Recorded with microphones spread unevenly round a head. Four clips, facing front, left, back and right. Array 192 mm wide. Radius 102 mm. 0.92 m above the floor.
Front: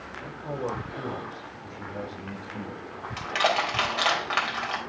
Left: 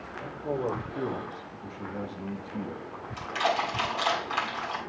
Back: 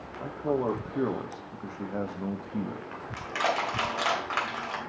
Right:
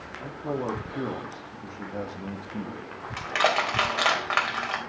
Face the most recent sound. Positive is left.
turn(degrees=-70)